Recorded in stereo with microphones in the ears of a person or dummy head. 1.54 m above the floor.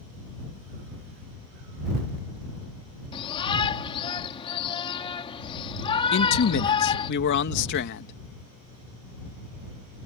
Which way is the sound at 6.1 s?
65° left (ahead or behind).